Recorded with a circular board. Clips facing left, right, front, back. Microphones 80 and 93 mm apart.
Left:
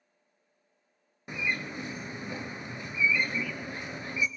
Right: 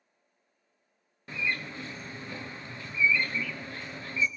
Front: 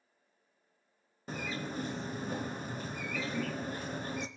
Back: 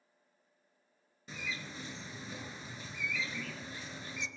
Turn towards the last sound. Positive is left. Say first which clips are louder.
# even, front 6 dB
turn(degrees=20)